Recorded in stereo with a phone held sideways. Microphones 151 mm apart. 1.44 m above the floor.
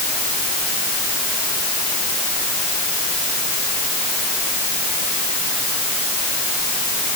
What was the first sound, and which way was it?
Only background noise.